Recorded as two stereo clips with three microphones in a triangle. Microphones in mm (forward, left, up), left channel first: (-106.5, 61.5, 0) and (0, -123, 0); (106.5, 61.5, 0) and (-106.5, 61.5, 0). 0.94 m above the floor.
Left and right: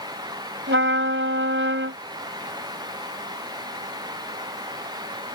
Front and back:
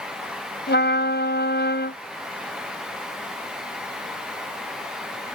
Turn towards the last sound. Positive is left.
turn(degrees=-35)